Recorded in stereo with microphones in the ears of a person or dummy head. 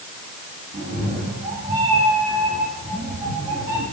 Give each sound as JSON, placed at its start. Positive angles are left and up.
{"t": 0.7, "sound": "a cat meowing", "side_deg": -40, "distance_m": 6.0}